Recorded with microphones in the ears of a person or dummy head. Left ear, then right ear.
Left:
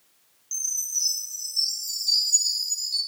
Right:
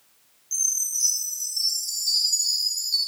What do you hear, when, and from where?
0.5 s a chime: 15° left (ahead or behind), 4.5 m